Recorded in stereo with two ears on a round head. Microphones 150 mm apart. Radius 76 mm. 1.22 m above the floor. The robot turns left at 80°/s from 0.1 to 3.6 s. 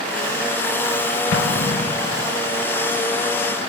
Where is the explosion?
90° left, 0.5 m; by 2.3 s 10° left, 0.5 m.